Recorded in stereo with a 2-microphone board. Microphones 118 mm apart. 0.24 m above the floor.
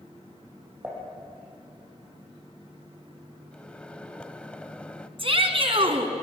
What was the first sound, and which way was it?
Dishes clattering, 15° right (ahead or behind).